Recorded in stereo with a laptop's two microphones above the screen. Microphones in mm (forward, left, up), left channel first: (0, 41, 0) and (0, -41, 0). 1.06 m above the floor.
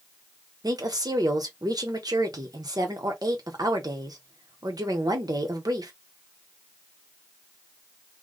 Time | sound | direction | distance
0.6 | a woman speaking | 55° right (ahead or behind) | 0.9 m